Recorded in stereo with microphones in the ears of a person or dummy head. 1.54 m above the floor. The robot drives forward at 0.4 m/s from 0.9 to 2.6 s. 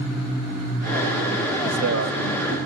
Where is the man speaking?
85° right, 2.5 m; by 2.6 s 75° right (ahead or behind), 2.5 m.